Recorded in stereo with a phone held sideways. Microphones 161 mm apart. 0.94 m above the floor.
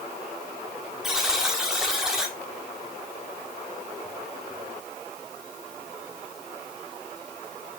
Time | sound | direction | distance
1.0 | a buzzer | 5° right (ahead or behind) | 1.7 m